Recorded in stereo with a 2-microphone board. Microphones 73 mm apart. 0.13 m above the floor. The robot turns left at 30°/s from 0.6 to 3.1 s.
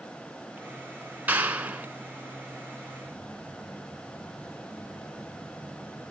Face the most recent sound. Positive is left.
turn(degrees=25)  # may be behind; listen again after turning